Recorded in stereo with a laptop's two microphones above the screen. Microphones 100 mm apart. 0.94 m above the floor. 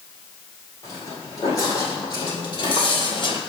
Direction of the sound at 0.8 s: 35° left (ahead or behind).